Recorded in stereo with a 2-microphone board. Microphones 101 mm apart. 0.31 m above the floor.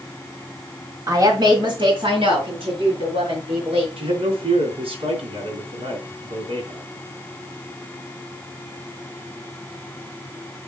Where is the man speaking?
70° right (ahead or behind), 3.5 m.